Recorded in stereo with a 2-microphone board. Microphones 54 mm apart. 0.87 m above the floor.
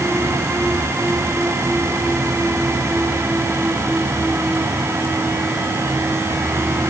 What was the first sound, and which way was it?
Only background noise.